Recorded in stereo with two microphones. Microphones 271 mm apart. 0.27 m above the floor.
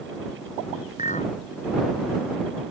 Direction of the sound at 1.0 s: 25° left (ahead or behind).